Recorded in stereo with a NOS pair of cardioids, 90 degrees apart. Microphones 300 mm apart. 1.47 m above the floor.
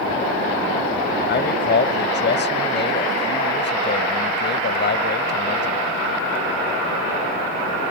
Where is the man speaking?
35° left.